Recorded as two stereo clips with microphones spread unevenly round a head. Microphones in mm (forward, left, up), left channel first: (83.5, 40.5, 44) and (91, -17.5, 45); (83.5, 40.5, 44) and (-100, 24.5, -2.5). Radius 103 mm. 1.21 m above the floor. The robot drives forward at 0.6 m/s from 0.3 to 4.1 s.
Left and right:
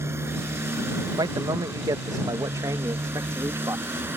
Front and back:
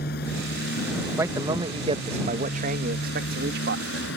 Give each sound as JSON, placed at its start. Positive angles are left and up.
{"t": 0.0, "sound": "a motorcycle", "azimuth_deg": -40}
{"t": 1.2, "sound": "a man speaking", "azimuth_deg": -100}